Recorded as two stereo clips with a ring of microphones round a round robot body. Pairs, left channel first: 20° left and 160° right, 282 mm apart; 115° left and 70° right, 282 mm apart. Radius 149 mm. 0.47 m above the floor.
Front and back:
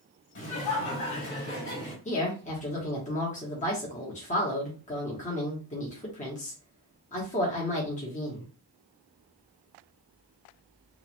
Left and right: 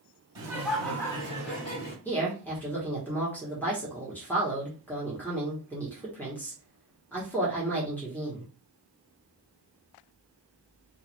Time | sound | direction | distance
0.3 | laughter | straight ahead | 1.7 m
2.0 | a woman speaking | 35° left | 1.0 m